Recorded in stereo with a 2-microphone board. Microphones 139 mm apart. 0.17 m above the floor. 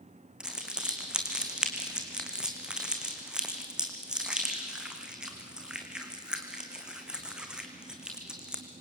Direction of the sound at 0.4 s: 5° right (ahead or behind).